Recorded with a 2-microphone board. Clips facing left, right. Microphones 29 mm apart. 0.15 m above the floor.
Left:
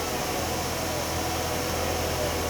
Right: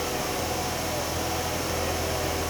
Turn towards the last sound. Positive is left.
No sound to turn to.